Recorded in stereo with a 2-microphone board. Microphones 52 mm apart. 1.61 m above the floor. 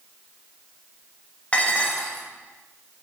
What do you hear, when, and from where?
1.5 s dishes clattering: 25° left (ahead or behind), 1.1 m